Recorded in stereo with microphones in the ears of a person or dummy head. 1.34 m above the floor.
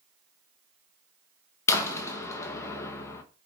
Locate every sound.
1.7 s a door slam: 20° left (ahead or behind), 1.0 m